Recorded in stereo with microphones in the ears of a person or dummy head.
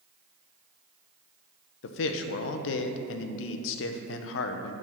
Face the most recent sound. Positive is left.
turn(degrees=70)  # may be behind; listen again after turning